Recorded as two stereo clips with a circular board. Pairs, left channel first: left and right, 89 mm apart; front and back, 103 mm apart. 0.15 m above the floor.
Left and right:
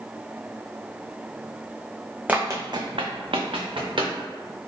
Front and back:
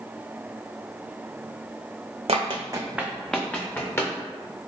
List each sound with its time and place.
2.3 s running footsteps: 165° right, 0.6 m; by 4.1 s 65° right, 1.4 m